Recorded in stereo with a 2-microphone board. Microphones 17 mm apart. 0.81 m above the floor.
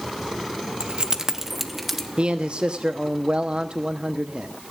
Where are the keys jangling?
65° right (ahead or behind), 0.7 m; by 2.1 s centre (ahead or behind), 1.7 m.